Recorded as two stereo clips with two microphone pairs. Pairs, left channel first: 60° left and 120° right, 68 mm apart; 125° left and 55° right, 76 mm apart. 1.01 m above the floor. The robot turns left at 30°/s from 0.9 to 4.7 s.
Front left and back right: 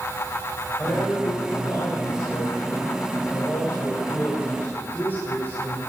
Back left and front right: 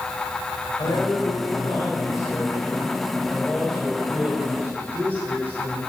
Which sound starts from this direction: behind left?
A man speaking, at 0.8 s.